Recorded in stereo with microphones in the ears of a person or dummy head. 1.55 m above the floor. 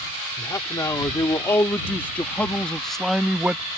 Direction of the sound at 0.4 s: 20° left (ahead or behind).